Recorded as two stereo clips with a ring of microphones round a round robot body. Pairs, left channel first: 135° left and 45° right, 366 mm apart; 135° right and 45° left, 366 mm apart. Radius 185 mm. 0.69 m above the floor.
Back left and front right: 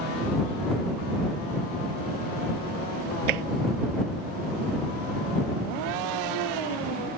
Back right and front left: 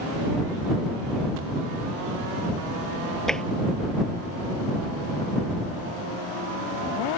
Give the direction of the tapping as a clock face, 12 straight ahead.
2 o'clock.